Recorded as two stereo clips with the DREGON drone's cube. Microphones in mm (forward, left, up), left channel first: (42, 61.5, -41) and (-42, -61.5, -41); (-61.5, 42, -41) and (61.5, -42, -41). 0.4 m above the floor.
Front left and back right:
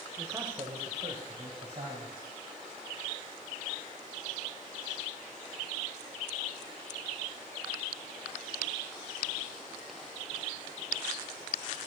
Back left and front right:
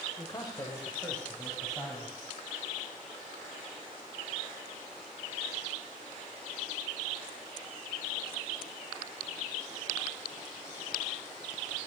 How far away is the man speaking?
About 1.0 m.